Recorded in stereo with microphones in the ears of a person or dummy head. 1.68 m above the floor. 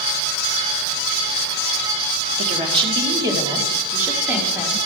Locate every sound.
2.4 s a woman speaking: 40° right (ahead or behind), 1.6 m; by 4.8 s 5° right (ahead or behind), 2.5 m